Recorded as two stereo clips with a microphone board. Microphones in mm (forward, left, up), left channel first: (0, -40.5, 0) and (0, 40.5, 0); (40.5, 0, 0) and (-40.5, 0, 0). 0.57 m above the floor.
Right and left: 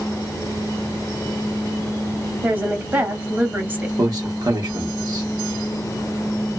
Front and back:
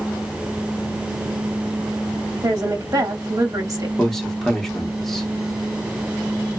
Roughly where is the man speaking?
Left.